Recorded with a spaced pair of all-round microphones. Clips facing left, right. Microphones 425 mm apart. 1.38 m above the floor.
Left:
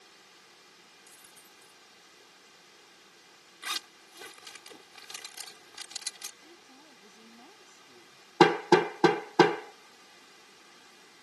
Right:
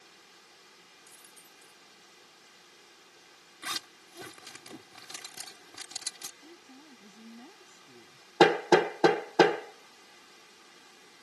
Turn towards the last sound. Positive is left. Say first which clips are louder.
# even
turn(degrees=20)  # may be behind; listen again after turning